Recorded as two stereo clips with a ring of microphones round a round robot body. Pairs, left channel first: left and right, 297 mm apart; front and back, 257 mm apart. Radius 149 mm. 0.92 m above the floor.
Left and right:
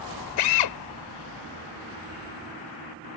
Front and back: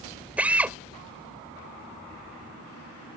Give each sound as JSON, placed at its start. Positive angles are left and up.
{"t": 0.4, "sound": "a drill", "azimuth_deg": 95}